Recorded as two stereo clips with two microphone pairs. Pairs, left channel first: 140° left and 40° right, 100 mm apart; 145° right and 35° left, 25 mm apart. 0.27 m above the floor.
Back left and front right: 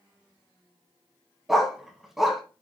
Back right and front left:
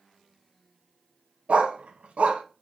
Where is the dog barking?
45° left, 0.7 m.